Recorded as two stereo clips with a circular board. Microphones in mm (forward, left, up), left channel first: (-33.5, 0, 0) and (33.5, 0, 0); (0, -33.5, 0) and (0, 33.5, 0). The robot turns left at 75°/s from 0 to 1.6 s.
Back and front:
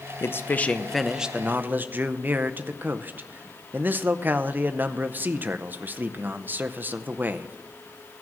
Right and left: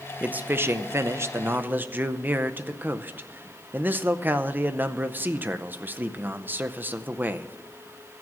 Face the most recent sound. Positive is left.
turn(degrees=45)